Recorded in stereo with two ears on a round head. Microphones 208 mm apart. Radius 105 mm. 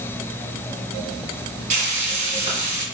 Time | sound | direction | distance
1.7 | frying | 35° right (ahead or behind) | 2 m